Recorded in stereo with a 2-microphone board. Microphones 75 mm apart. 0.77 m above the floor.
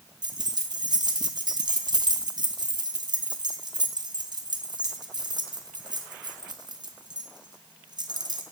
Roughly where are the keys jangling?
Right.